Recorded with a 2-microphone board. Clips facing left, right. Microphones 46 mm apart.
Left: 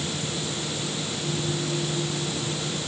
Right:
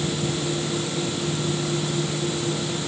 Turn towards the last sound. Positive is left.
No sound to turn to.